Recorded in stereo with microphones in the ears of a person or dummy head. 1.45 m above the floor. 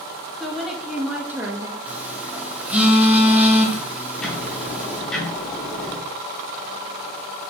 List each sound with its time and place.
0.4 s a woman speaking: 5° left (ahead or behind), 1.8 m; by 1.8 s 20° right (ahead or behind), 1.3 m
1.9 s a phone buzzing: 5° right (ahead or behind), 1.8 m
4.2 s ticking: 10° left (ahead or behind), 2.5 m